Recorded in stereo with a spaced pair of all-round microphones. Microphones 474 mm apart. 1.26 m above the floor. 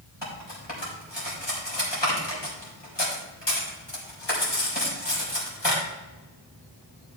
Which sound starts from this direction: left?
Cutlery clinking, at 0.2 s.